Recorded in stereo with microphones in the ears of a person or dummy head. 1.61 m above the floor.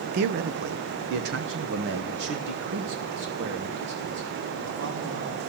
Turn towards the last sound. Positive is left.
turn(degrees=-75)  # may be behind; listen again after turning